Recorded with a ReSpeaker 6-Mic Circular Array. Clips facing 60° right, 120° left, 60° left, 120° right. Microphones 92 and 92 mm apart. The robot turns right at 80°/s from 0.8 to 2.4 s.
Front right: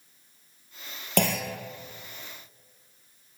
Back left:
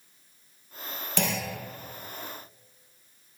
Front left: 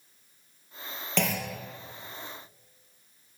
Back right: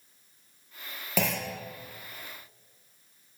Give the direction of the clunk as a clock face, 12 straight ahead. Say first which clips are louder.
Front right 4 dB, even; 1 o'clock.